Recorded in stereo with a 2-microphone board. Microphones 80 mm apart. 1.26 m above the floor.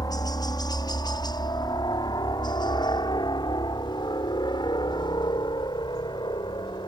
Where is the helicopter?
55° left (ahead or behind); by 6.9 s 70° left (ahead or behind).